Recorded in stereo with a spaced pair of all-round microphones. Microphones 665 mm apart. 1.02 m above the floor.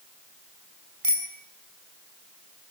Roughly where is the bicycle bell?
Right.